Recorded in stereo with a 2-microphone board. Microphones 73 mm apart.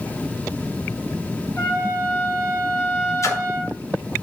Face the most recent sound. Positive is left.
turn(degrees=45)  # may be behind; listen again after turning